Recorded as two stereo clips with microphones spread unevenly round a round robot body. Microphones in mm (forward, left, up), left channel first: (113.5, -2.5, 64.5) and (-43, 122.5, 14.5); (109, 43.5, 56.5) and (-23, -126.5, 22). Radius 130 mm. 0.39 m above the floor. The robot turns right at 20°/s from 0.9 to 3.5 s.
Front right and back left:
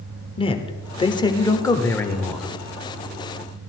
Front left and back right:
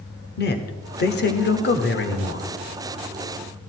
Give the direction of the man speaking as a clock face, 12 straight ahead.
11 o'clock.